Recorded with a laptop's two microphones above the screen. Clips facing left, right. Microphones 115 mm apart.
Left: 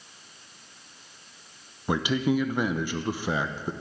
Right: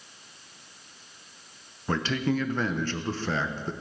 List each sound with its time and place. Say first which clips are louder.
1.9 s a man speaking: left 2 dB; 10° left (ahead or behind), 0.7 m